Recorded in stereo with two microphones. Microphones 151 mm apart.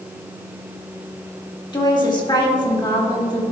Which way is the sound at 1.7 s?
30° left (ahead or behind).